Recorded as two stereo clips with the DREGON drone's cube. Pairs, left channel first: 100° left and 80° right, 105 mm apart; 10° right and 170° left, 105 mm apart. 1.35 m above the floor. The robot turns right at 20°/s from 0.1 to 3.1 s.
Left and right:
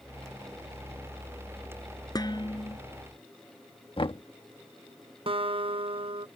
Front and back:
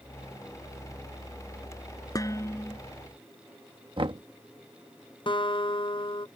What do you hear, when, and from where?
2.1 s dishes clattering: 45° left; by 2.8 s 60° left
4.0 s knocking: 135° left
5.3 s a guitar: 50° right